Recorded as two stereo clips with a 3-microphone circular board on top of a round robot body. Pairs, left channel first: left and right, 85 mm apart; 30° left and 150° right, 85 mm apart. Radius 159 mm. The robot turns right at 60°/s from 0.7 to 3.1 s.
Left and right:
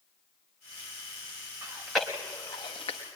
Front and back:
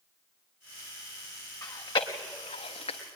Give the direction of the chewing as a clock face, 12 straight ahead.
1 o'clock.